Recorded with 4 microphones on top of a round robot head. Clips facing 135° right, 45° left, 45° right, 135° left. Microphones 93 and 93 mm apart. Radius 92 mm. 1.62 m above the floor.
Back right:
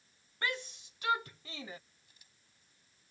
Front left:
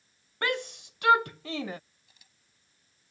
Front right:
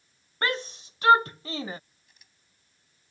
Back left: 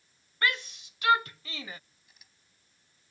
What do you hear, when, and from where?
0.4 s a shout: 15° left
2.1 s a camera shutter: 45° left